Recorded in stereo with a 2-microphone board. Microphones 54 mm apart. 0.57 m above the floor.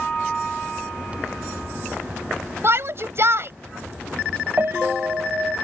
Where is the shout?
55° right (ahead or behind).